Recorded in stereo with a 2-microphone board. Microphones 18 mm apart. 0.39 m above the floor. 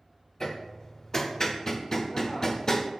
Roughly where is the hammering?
Left.